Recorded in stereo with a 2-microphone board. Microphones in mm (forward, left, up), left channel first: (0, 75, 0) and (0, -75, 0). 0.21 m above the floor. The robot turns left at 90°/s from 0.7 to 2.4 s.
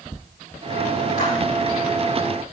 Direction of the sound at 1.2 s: 80° left.